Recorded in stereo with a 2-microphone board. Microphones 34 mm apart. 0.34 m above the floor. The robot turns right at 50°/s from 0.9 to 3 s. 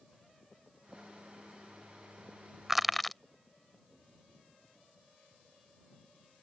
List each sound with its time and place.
2.7 s crushing: 10° right (ahead or behind); by 3.2 s 5° left (ahead or behind)